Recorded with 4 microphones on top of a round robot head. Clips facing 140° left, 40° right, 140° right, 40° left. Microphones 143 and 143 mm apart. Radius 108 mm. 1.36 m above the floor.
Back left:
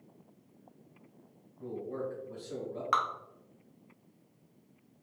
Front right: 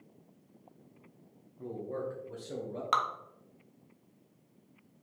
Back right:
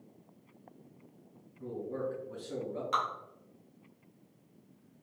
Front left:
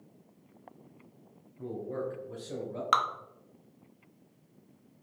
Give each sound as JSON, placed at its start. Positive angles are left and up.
{"t": 1.6, "sound": "a man speaking", "azimuth_deg": 25, "distance_m": 0.9}
{"t": 2.9, "sound": "dripping", "azimuth_deg": 25, "distance_m": 0.5}